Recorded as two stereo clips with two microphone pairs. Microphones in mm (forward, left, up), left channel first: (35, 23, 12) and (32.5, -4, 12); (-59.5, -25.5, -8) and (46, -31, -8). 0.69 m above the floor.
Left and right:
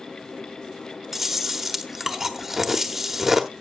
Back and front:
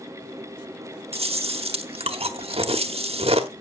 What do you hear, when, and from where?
1.1 s chewing: 20° right, 1.2 m